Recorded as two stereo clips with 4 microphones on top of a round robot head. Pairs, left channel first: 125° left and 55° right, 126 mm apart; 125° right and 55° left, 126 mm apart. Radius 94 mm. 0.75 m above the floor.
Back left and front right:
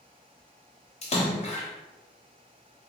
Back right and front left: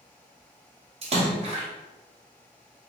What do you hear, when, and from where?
1.0 s a splash: 95° left, 1.4 m